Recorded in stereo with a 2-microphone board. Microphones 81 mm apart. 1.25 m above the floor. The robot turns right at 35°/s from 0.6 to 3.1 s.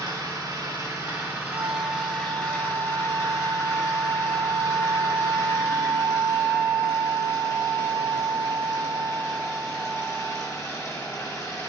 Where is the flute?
75° right, 1.7 m; by 10.6 s 20° right, 1.7 m.